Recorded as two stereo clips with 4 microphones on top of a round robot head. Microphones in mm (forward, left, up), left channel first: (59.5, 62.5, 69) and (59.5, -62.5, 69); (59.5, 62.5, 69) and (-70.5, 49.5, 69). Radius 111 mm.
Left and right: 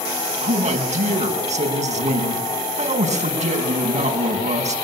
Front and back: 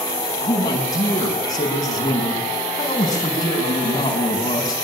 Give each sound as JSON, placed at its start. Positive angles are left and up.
{"t": 0.4, "sound": "a man speaking", "azimuth_deg": -60, "distance_m": 6.0}